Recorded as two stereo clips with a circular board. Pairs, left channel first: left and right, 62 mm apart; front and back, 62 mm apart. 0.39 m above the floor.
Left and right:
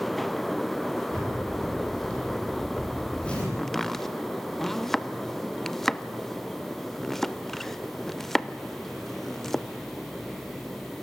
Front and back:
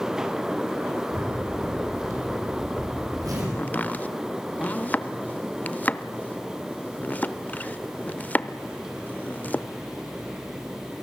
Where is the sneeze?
I don't hear a sneeze.